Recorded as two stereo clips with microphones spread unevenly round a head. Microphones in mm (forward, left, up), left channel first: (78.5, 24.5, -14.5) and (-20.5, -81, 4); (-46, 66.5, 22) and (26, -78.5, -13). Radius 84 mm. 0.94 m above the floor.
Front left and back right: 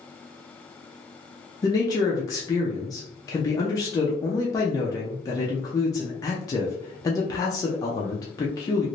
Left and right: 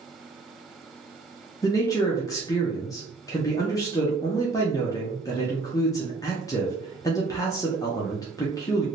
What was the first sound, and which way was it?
A man speaking, 45° left.